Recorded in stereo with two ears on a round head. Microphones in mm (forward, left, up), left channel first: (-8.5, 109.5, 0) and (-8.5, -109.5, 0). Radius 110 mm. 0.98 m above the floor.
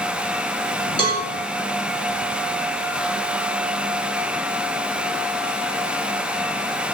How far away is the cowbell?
About 2.5 m.